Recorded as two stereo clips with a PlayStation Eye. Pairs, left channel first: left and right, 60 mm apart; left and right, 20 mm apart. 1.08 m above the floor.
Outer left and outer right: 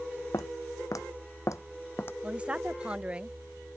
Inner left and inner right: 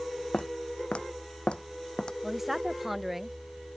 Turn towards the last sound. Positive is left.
turn(degrees=-15)  # may be behind; listen again after turning